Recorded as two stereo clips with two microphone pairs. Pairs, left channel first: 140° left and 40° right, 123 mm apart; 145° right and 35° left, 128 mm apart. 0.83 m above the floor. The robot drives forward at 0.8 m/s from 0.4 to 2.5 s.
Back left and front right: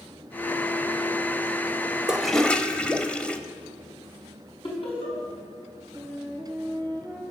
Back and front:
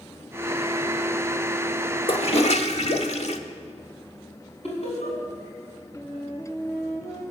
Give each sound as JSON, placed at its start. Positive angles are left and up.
{"t": 2.1, "sound": "a toilet flushing", "azimuth_deg": -120, "distance_m": 0.7}
{"t": 4.6, "sound": "laughter", "azimuth_deg": 180, "distance_m": 6.0}
{"t": 6.0, "sound": "a flute", "azimuth_deg": -140, "distance_m": 6.5}